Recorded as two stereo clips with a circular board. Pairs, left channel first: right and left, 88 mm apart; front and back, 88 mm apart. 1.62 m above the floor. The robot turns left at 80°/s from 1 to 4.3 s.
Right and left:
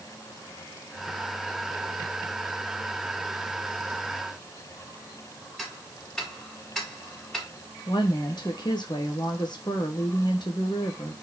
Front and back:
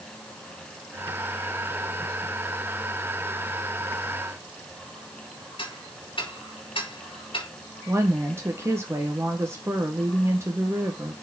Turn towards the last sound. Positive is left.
turn(degrees=-120)